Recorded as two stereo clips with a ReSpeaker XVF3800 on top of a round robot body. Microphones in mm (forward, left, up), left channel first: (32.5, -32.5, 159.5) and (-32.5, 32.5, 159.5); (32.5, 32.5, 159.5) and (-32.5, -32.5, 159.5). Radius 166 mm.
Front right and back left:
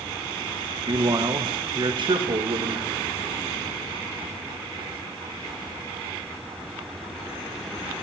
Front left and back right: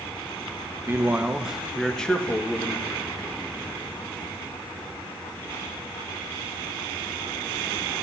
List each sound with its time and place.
0.9 s a man speaking: 165° left, 1.5 m; by 3.0 s 110° left, 2 m